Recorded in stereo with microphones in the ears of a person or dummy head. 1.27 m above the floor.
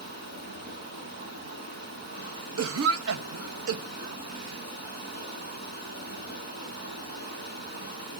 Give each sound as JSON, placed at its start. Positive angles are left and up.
{"t": 0.0, "sound": "running water", "side_deg": -50, "distance_m": 3.0}
{"t": 2.6, "sound": "a cough", "side_deg": -80, "distance_m": 1.2}